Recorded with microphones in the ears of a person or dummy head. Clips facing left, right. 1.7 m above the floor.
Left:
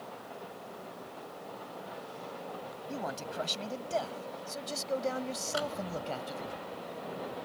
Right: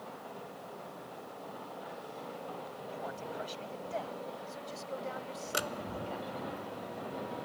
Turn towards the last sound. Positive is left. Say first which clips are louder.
# left 3 dB
turn(degrees=-35)  # may be behind; listen again after turning